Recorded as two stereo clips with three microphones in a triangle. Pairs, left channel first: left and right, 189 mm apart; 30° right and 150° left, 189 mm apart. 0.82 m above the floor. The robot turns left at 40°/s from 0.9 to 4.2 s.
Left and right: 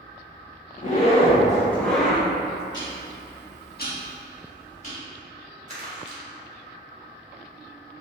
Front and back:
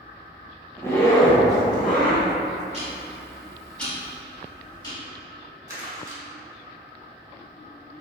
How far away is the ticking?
About 1.3 m.